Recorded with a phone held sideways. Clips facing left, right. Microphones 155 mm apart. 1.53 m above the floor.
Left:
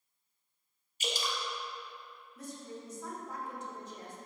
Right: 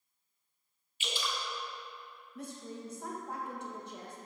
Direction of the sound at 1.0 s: 40° left (ahead or behind).